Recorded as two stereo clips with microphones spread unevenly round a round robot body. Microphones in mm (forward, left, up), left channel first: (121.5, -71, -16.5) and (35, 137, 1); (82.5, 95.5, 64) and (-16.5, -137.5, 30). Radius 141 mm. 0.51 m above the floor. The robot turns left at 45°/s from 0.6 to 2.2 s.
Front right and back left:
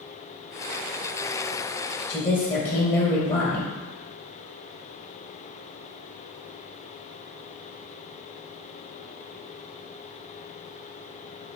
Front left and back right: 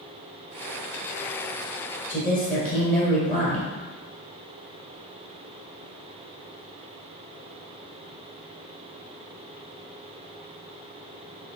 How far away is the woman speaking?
About 1.7 m.